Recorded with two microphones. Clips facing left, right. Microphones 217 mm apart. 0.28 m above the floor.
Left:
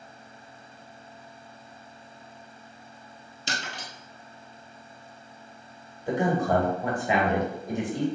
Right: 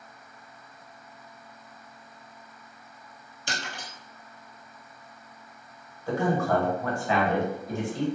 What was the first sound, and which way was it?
Breaking glass, 25° left (ahead or behind).